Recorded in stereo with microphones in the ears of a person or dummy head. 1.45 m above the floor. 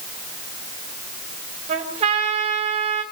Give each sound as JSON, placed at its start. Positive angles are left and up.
{"t": 1.7, "sound": "a trumpet", "side_deg": -30, "distance_m": 3.0}